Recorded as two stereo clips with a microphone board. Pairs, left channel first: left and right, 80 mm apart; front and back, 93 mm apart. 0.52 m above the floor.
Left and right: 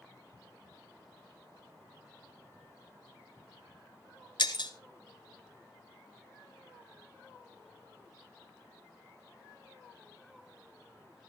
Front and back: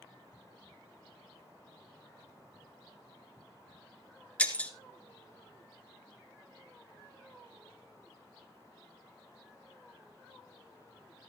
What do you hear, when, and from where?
4.4 s breaking glass: 75° left, 1.3 m